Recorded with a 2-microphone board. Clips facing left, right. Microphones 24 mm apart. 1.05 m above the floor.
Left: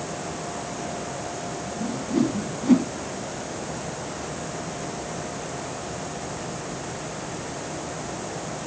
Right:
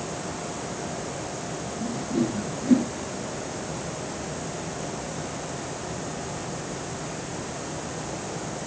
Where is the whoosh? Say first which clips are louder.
Left 3 dB; 65° left (ahead or behind), 3.5 m.